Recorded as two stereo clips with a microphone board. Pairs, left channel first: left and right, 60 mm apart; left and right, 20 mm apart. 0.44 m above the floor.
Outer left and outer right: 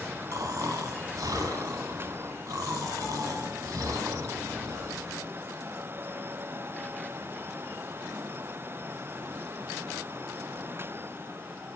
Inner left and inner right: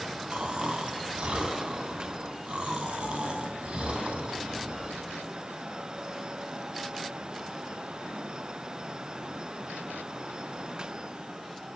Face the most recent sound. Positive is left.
turn(degrees=-60)  # may be behind; listen again after turning